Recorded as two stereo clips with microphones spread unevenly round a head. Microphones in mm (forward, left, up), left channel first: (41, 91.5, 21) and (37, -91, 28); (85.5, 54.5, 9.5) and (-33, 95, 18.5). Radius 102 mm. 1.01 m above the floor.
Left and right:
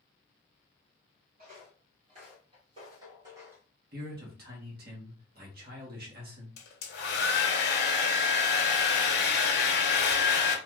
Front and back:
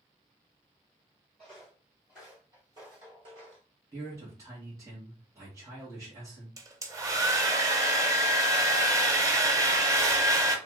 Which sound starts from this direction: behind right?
A man speaking, at 3.9 s.